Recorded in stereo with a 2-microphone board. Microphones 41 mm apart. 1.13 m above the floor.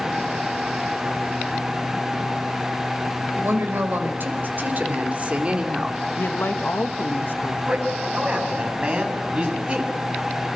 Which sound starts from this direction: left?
A man speaking, at 6.2 s.